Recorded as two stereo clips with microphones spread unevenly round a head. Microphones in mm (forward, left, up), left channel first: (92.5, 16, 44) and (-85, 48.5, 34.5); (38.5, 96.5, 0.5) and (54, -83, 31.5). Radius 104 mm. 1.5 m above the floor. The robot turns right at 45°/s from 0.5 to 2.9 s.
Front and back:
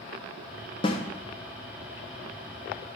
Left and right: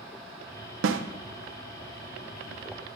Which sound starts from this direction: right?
A snare drum, at 0.8 s.